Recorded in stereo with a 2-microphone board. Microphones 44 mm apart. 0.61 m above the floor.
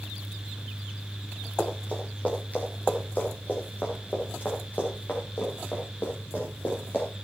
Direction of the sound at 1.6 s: 30° left (ahead or behind).